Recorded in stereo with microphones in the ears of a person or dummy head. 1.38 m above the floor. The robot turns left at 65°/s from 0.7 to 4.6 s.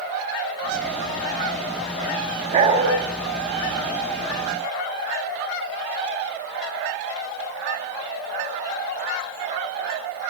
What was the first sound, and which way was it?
A dog barking, 45° right (ahead or behind).